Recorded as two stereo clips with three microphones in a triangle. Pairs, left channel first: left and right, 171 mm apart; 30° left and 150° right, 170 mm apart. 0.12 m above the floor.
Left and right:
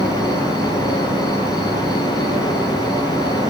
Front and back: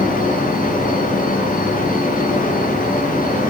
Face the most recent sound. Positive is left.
turn(degrees=0)